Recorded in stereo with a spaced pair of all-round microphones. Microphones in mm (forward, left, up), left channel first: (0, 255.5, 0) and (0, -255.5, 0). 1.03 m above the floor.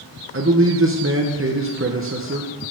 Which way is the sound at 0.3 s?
25° right (ahead or behind).